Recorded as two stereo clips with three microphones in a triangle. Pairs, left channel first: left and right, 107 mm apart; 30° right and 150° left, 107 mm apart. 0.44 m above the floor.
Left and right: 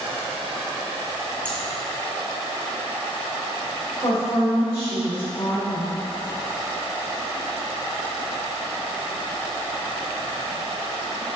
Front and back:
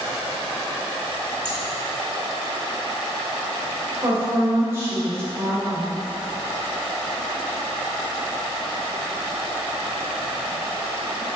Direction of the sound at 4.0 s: 90° left.